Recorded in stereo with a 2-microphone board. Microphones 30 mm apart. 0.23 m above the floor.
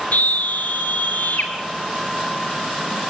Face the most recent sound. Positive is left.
turn(degrees=70)  # may be behind; listen again after turning